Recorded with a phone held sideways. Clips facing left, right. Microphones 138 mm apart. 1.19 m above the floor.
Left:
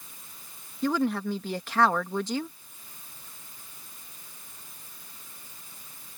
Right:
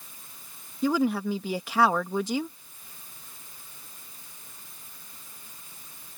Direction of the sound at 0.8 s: 10° right (ahead or behind).